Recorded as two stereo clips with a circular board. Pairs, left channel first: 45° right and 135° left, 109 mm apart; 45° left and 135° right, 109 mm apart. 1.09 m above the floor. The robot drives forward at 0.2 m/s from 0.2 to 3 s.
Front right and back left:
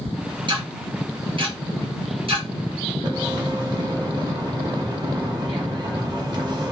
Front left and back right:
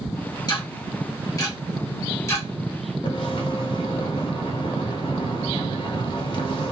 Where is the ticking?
95° left, 1.8 m; by 2.5 s 110° left, 1.8 m.